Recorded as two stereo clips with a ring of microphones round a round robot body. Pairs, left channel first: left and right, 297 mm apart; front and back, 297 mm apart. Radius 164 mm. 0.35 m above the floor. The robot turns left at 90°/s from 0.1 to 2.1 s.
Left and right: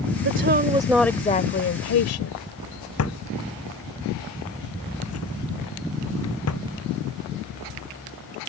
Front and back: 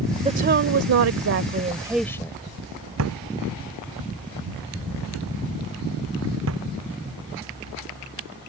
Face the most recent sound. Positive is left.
turn(degrees=130)